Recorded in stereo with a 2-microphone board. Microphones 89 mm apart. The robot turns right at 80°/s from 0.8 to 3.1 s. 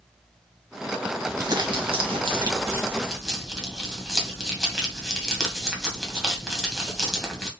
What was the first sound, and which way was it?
Crumpling, 150° right.